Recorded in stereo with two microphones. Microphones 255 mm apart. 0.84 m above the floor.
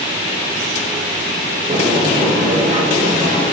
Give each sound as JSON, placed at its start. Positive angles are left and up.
{"t": 1.7, "sound": "a sliding door", "side_deg": -30, "distance_m": 9.5}